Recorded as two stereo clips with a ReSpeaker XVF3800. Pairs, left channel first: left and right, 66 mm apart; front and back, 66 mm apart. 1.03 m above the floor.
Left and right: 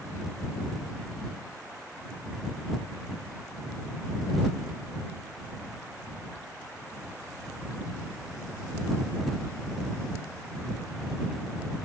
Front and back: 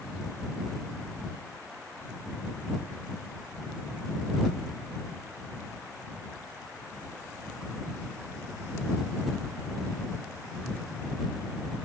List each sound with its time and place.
Only background noise.